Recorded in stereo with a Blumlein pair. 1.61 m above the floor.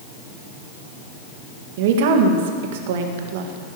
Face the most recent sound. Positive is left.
turn(degrees=-50)